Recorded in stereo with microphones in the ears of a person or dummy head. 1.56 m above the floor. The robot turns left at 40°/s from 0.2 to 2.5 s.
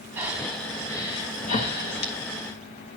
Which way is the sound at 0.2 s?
10° right (ahead or behind).